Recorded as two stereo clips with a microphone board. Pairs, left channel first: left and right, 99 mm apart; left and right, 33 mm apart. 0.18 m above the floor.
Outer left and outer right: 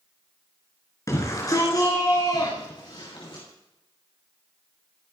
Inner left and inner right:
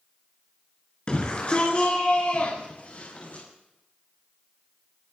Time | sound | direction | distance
1.1 | a shout | 30° left (ahead or behind) | 3 m